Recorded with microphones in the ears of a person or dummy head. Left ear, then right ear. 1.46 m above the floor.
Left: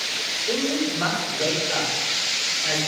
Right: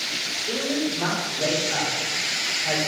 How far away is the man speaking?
About 5 m.